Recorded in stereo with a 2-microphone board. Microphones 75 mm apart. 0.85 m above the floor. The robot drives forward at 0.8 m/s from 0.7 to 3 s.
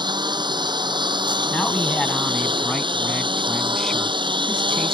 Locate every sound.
0.0 s a lawn mower: 70° right (ahead or behind); by 4.9 s 85° right
1.5 s a man speaking: 5° left (ahead or behind)